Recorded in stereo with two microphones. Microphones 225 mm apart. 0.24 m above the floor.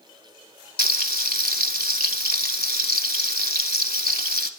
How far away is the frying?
About 0.7 m.